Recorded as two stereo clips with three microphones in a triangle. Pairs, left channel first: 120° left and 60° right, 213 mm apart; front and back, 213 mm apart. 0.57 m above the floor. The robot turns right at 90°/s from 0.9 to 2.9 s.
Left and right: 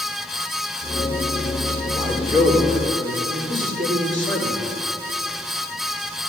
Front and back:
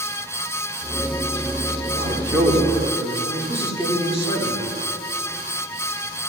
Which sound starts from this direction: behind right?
A man speaking, at 2.0 s.